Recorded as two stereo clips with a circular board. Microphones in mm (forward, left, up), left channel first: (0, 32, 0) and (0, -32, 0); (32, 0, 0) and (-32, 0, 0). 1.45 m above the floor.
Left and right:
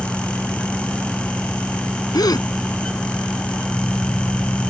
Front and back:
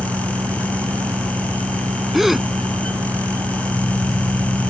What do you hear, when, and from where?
0.0 s an engine running: straight behind
2.1 s a gasp: 95° left